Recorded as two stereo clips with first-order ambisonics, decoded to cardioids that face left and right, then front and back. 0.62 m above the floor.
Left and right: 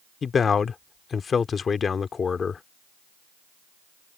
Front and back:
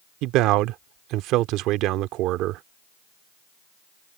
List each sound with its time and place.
0.2 s a man speaking: 155° left